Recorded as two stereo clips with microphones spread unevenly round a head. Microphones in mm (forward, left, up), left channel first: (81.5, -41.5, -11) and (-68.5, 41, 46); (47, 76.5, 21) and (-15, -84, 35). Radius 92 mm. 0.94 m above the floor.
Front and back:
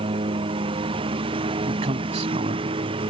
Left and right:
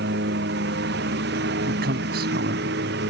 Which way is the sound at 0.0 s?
145° right.